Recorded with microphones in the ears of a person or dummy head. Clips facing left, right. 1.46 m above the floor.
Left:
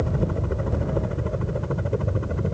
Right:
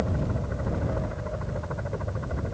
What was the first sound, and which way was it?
A helicopter, 45° left (ahead or behind).